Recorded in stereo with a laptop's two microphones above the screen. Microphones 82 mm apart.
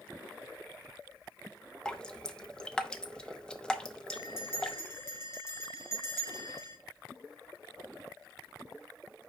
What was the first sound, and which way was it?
Dripping, 10° left (ahead or behind).